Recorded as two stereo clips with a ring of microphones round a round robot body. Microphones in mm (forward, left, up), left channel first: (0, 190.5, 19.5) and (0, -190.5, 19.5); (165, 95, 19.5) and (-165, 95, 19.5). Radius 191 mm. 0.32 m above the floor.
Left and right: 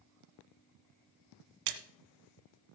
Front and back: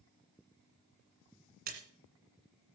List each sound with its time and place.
1.7 s a splash: 115° right, 1.5 m